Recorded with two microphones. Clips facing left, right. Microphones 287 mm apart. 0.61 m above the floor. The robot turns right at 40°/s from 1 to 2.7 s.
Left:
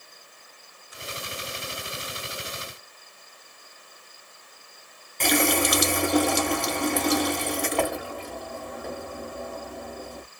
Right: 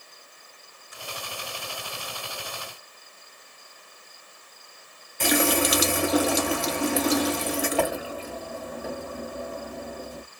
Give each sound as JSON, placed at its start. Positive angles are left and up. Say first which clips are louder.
{"t": 5.2, "sound": "a running tap", "louder": "right 1 dB", "side_deg": -5, "distance_m": 0.8}